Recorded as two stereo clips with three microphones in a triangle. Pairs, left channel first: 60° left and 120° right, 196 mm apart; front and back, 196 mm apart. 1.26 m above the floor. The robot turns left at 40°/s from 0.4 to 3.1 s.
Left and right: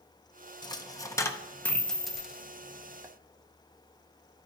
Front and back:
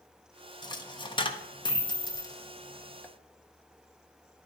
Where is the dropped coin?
30° left, 0.6 m; by 3.1 s 70° right, 0.6 m.